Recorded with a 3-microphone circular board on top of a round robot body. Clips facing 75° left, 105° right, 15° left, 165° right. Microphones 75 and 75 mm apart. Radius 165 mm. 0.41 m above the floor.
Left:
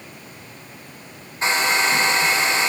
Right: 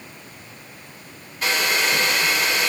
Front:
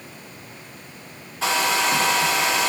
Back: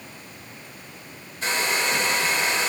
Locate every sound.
1.4 s a hair dryer: 10° left, 2 m